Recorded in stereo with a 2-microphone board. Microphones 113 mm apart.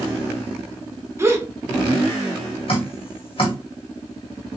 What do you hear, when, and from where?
1.2 s a gasp: 25° right (ahead or behind), 0.7 m
2.7 s dripping: 50° left (ahead or behind), 1.6 m